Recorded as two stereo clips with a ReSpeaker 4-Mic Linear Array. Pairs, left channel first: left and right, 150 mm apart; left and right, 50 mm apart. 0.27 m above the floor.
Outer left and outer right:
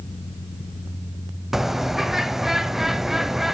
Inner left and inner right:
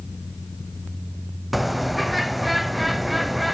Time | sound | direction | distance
1.5 | a bird | centre (ahead or behind) | 0.7 m